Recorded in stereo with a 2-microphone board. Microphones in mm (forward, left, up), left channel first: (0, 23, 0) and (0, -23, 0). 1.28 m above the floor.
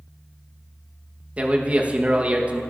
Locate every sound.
1.4 s a man speaking: 25° right (ahead or behind), 1.2 m